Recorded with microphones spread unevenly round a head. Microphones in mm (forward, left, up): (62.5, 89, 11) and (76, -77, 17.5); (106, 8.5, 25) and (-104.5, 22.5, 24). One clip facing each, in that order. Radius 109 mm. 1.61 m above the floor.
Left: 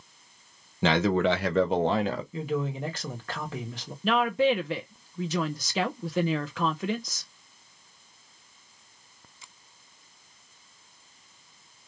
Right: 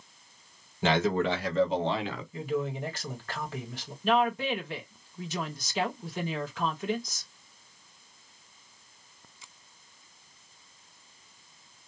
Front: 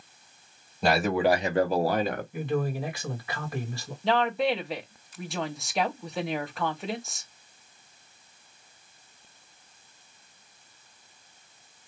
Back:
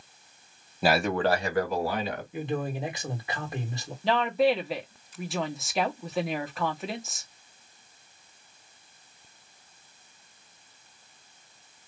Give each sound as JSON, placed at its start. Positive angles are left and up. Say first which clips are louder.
{"t": 0.8, "sound": "a man speaking", "louder": "left 3 dB, front 1 dB", "azimuth_deg": 90, "distance_m": 1.3}
{"t": 2.3, "sound": "a man speaking", "louder": "left 1 dB, front 1 dB", "azimuth_deg": 105, "distance_m": 1.9}
{"t": 4.0, "sound": "a woman speaking", "louder": "left 3 dB, back 2 dB", "azimuth_deg": 85, "distance_m": 1.2}